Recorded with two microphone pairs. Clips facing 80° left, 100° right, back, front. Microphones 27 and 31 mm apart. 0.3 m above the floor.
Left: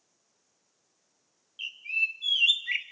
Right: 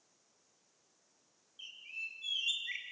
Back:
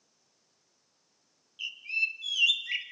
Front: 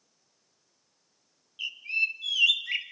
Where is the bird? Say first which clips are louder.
Left 15 dB, front 2 dB; 75° left, 0.9 m.